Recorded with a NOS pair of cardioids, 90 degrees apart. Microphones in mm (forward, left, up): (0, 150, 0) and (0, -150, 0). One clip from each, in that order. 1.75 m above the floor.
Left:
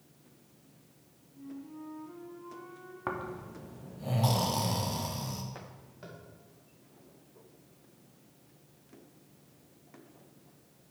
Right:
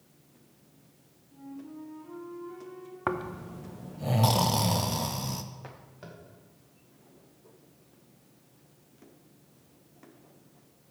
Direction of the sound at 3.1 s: 30° right.